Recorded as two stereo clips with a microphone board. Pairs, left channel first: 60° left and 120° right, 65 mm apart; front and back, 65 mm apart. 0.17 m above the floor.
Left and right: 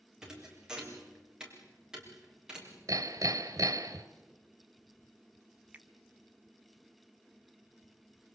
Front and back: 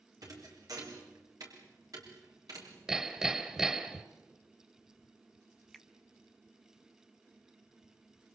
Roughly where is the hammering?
Right.